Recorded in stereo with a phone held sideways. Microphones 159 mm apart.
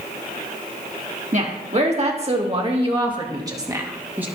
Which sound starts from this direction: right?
A woman speaking, at 1.3 s.